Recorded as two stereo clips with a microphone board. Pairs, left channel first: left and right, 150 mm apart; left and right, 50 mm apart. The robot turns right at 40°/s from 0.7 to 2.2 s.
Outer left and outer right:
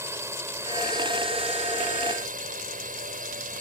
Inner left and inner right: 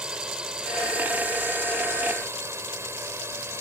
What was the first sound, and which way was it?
A drone, 20° right (ahead or behind).